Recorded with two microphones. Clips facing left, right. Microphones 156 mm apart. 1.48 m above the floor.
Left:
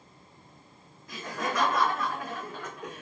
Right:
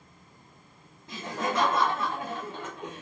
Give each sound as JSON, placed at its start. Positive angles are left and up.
{"t": 1.1, "sound": "laughter", "side_deg": -25, "distance_m": 0.8}